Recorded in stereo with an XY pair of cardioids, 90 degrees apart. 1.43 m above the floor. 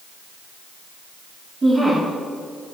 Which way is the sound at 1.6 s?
25° right.